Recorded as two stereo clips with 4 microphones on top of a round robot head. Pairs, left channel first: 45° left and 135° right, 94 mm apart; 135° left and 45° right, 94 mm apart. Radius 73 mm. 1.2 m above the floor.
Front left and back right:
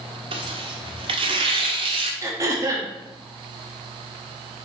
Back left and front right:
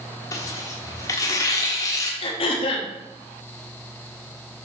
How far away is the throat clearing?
About 1.3 m.